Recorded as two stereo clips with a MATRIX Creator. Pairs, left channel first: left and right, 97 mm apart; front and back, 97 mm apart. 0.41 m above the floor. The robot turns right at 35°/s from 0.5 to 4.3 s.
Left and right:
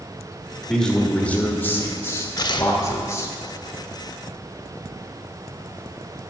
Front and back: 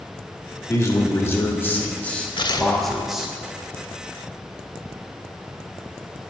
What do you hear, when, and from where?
0.7 s a man speaking: 10° left, 1.1 m; by 3.3 s 105° left, 1.1 m
2.4 s tearing paper: 40° left, 0.5 m; by 2.7 s 55° left, 0.5 m